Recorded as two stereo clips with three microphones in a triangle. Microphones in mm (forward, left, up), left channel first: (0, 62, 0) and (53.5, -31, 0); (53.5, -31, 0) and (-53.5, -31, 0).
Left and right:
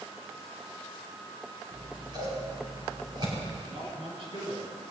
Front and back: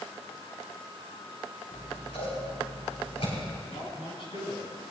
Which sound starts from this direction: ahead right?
A man speaking, at 3.7 s.